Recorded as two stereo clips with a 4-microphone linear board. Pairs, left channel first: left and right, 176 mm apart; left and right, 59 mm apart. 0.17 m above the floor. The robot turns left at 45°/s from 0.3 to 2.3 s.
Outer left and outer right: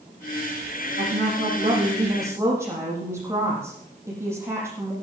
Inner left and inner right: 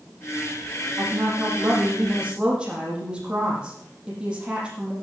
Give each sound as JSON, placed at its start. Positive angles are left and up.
{"t": 1.0, "sound": "a woman speaking", "azimuth_deg": -105, "distance_m": 8.0}